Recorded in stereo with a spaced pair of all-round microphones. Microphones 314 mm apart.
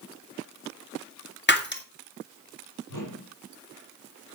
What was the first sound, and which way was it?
Breaking glass, 35° left (ahead or behind).